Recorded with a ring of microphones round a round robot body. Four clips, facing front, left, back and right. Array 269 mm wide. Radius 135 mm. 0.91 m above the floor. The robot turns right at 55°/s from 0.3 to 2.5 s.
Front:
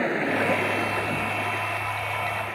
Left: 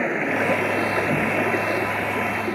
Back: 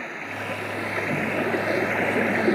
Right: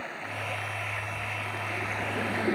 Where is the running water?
55° left; by 2.6 s straight behind.